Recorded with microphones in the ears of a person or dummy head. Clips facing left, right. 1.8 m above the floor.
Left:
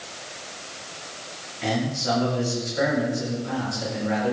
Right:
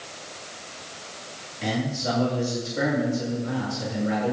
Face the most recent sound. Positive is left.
turn(degrees=-65)  # may be behind; listen again after turning